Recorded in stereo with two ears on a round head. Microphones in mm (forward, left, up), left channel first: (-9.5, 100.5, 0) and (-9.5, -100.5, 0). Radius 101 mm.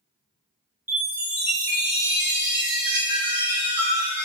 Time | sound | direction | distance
0.9 | a chime | 10° right (ahead or behind) | 0.9 m